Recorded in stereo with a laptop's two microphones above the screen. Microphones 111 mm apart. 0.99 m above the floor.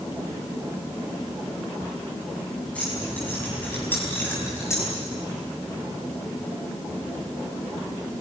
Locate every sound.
2.8 s keys jangling: 10° left (ahead or behind), 6 m; by 4.9 s 25° left (ahead or behind), 4.5 m